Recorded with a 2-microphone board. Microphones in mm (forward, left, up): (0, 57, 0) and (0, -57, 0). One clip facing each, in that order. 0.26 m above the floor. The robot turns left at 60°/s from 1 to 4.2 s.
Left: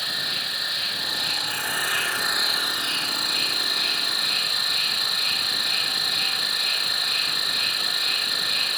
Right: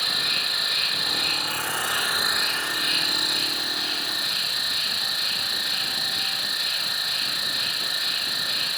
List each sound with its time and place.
0.0 s an insect: 100° right, 0.7 m; by 8.8 s 70° left, 0.7 m